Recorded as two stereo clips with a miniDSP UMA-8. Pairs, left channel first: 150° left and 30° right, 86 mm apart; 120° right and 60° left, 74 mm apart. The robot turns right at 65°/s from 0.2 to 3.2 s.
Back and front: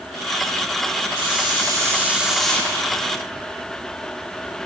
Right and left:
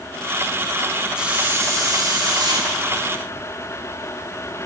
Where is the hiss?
20° right, 1.7 m; by 2.7 s 80° left, 1.7 m.